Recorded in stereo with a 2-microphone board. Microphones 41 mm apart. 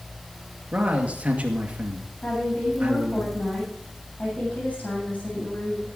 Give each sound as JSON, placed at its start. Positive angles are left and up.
{"t": 0.7, "sound": "a man speaking", "side_deg": -35, "distance_m": 2.0}
{"t": 2.2, "sound": "a woman speaking", "side_deg": 35, "distance_m": 8.5}